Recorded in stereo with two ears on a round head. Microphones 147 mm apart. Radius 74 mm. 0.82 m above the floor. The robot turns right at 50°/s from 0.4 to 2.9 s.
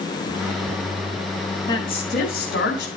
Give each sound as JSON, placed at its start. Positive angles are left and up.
{"t": 1.7, "sound": "a woman speaking", "azimuth_deg": 25, "distance_m": 4.5}